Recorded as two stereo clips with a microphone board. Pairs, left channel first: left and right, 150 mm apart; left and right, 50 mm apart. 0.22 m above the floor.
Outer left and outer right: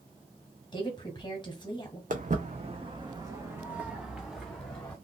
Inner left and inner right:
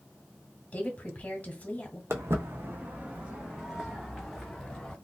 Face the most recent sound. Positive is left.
turn(degrees=10)  # may be behind; listen again after turning